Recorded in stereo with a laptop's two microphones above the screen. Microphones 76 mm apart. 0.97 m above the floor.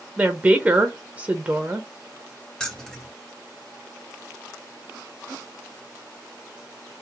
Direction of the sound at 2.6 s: 10° left (ahead or behind).